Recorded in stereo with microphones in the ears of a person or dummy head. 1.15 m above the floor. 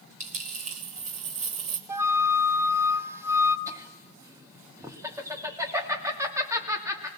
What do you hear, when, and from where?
0.2 s a dropped coin: 40° right (ahead or behind), 1.2 m
1.9 s a flute: 10° right (ahead or behind), 0.9 m
3.7 s laughter: 20° right (ahead or behind), 2.5 m